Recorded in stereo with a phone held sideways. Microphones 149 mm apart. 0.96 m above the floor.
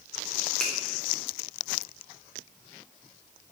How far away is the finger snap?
About 3.5 m.